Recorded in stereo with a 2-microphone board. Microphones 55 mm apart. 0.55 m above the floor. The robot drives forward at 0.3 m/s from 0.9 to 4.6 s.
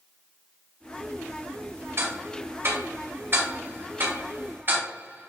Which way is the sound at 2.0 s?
55° right (ahead or behind).